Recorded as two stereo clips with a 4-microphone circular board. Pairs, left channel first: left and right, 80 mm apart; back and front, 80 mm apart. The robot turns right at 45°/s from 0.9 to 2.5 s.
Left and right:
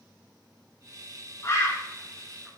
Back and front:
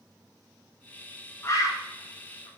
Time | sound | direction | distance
1.4 | a bird | 135° left | 0.9 m